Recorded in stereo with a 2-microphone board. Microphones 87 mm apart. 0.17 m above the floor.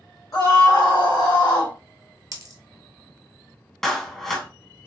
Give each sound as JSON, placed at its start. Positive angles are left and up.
{"t": 0.3, "sound": "a scream", "side_deg": 40, "distance_m": 1.3}
{"t": 2.3, "sound": "a dropped coin", "side_deg": -45, "distance_m": 0.9}
{"t": 3.8, "sound": "a clap", "side_deg": 5, "distance_m": 1.1}